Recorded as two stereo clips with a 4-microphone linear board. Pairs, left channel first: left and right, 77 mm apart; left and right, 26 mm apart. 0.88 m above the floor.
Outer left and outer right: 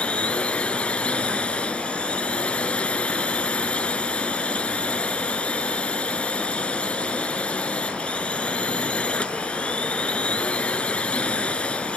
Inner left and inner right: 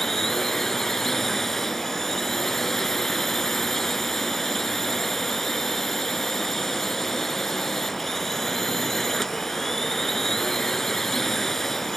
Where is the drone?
15° left (ahead or behind).